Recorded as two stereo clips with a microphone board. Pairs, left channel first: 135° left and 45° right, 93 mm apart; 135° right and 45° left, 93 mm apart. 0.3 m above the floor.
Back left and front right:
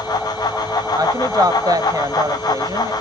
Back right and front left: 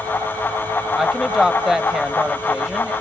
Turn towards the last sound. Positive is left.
turn(degrees=-40)